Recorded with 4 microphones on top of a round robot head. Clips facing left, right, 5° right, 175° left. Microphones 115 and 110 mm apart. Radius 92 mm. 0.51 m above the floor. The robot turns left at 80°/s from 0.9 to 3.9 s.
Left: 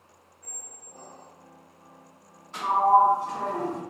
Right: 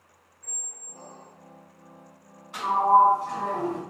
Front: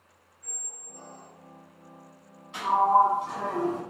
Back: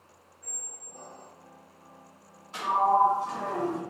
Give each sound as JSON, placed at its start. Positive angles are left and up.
{"t": 0.4, "sound": "a squeak", "azimuth_deg": 135, "distance_m": 1.3}
{"t": 2.5, "sound": "a sliding door", "azimuth_deg": -165, "distance_m": 1.2}